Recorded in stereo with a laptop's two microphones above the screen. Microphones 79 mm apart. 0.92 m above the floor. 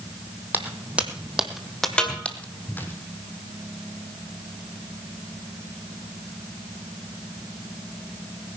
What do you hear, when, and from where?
0.5 s footsteps: 25° right (ahead or behind), 1.5 m; by 3.0 s 30° left (ahead or behind), 1.6 m
2.0 s a snare drum: 10° left (ahead or behind), 1.9 m